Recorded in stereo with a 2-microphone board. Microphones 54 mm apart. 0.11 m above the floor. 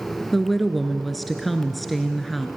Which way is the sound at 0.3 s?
Centre (ahead or behind).